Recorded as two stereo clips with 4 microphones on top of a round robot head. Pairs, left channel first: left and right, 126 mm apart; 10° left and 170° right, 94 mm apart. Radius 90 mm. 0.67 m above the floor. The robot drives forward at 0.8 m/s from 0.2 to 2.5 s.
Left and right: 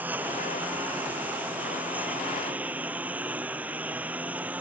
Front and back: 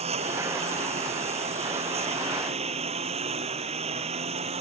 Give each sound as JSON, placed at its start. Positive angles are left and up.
{"t": 0.0, "sound": "a lawn mower", "azimuth_deg": -170}